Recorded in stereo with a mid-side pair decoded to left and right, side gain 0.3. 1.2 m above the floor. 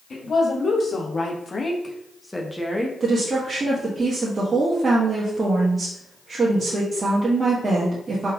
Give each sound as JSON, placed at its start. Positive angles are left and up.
{"t": 0.1, "sound": "a woman speaking", "azimuth_deg": 65, "distance_m": 2.0}
{"t": 3.0, "sound": "a woman speaking", "azimuth_deg": -45, "distance_m": 1.2}